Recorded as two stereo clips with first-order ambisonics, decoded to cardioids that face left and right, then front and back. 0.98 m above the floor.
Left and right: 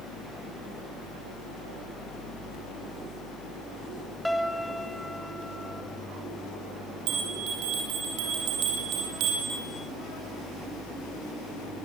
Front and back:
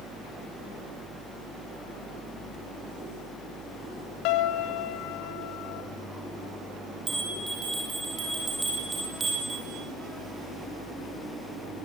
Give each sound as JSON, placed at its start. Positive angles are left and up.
{"t": 4.2, "sound": "a piano", "azimuth_deg": 0, "distance_m": 1.4}
{"t": 7.1, "sound": "a bell", "azimuth_deg": -105, "distance_m": 5.5}